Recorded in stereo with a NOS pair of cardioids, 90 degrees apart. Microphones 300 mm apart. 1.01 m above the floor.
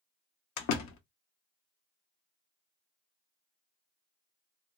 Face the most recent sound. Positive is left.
turn(degrees=65)